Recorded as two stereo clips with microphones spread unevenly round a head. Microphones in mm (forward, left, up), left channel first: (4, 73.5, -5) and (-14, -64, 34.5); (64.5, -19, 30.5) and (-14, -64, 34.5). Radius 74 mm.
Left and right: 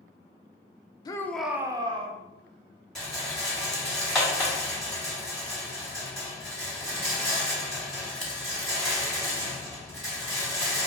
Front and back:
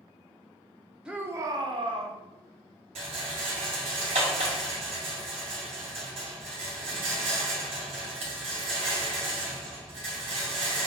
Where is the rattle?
170° left, 1.5 m.